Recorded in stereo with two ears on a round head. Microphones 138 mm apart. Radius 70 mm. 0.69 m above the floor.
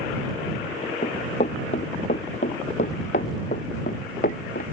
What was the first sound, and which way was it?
Running footsteps, 40° left (ahead or behind).